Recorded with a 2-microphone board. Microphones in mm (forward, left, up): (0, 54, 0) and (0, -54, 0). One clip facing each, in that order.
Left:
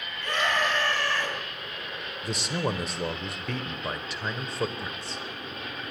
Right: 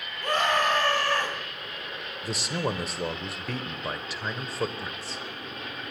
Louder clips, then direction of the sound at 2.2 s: Even; centre (ahead or behind).